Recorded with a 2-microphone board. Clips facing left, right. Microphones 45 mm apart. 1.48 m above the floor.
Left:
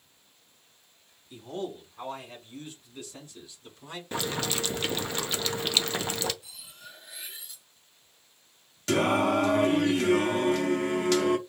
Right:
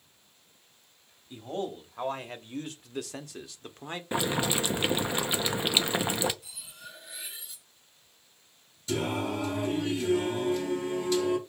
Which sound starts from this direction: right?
A man speaking, at 1.3 s.